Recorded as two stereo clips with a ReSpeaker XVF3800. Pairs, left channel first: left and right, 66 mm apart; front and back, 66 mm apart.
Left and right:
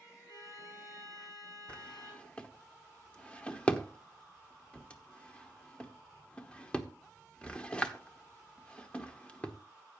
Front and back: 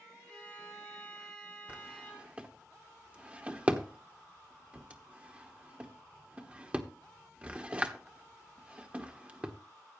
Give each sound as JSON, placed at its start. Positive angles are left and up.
{"t": 0.3, "sound": "a violin", "azimuth_deg": 75, "distance_m": 6.5}
{"t": 1.7, "sound": "a drawer", "azimuth_deg": 140, "distance_m": 1.1}